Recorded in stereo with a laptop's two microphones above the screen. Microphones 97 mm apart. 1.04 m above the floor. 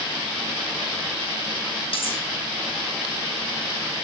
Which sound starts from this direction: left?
Cutlery clinking, at 1.9 s.